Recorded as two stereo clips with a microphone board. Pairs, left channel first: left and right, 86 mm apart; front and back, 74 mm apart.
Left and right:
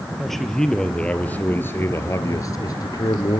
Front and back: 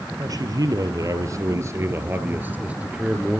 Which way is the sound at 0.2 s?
Straight behind.